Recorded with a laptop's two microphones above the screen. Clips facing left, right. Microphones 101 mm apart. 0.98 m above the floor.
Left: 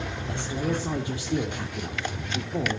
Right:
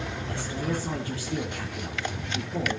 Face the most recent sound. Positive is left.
turn(degrees=20)  # may be behind; listen again after turning